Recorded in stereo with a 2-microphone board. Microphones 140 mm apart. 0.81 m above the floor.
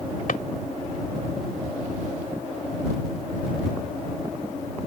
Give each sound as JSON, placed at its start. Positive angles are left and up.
{"t": 0.3, "sound": "a drawer", "side_deg": 75}